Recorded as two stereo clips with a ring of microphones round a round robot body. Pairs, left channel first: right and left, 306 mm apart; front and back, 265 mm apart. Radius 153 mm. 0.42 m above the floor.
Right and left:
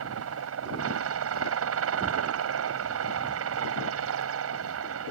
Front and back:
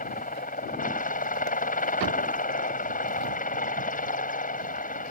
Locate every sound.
0.0 s a helicopter: 55° left